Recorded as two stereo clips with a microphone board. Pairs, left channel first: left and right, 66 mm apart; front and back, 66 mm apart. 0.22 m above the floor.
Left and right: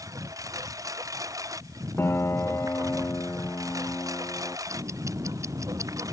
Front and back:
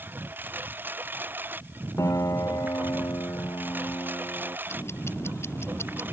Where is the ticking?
50° right.